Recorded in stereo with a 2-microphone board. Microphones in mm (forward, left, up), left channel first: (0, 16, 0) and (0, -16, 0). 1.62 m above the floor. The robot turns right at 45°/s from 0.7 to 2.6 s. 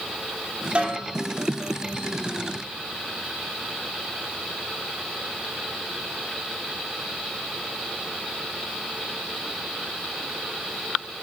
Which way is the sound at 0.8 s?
35° right (ahead or behind).